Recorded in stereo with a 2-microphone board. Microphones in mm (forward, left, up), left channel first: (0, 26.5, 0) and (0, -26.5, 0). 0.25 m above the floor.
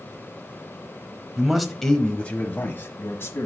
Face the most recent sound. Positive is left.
turn(degrees=50)  # may be behind; listen again after turning